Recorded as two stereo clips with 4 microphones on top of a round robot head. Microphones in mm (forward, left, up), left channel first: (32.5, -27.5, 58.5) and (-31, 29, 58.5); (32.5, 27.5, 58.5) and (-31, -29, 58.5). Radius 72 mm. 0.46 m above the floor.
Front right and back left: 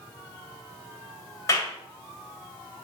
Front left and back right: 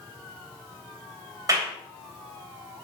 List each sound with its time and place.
1.5 s a clap: 95° right, 2.5 m